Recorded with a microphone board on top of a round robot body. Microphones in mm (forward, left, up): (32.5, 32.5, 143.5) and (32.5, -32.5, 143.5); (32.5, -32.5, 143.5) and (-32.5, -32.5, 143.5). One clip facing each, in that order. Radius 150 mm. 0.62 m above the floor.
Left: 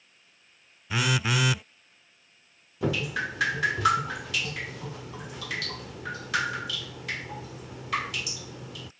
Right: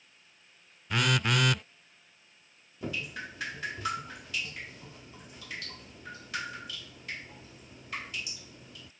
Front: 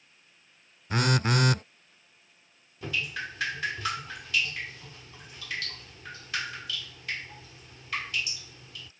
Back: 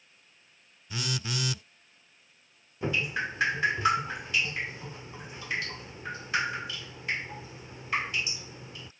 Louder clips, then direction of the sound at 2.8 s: Left 9 dB, back 4 dB; 110° left.